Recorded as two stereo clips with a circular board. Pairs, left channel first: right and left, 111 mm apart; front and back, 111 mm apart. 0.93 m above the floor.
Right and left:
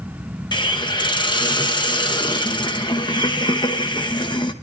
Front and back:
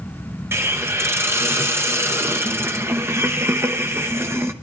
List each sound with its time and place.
0.5 s a hiss: 120° right, 0.9 m